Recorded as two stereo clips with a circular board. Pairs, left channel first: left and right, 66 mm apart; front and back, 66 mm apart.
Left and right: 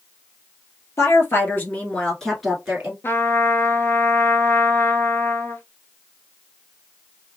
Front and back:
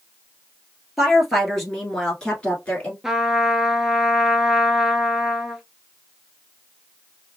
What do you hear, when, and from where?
1.0 s a woman speaking: 90° left, 1.5 m; by 2.9 s 40° right, 1.2 m
3.0 s a trumpet: 95° left, 0.5 m